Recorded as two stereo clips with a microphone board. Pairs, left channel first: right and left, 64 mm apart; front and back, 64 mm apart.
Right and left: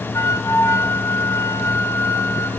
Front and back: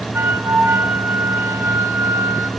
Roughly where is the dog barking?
I don't hear a dog barking.